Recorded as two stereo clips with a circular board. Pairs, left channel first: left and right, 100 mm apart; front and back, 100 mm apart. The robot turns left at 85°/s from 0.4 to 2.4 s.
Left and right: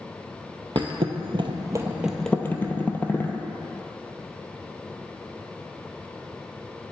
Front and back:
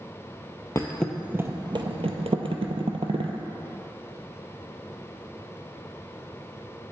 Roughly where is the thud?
Ahead right.